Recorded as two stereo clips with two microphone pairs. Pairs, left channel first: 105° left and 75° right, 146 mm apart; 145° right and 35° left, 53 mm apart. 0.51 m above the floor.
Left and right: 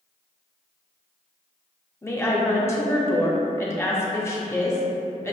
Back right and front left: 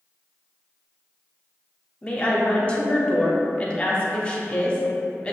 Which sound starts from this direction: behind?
A woman speaking, at 2.0 s.